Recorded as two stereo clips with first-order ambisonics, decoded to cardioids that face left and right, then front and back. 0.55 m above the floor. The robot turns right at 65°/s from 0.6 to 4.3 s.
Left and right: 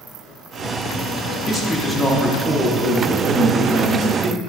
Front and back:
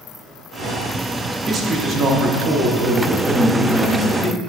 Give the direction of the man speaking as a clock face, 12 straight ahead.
7 o'clock.